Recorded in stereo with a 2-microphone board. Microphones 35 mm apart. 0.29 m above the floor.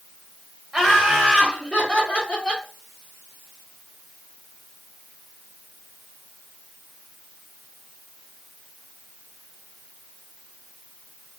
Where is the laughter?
15° right (ahead or behind), 1.5 m; by 2.6 s 45° left (ahead or behind), 2 m.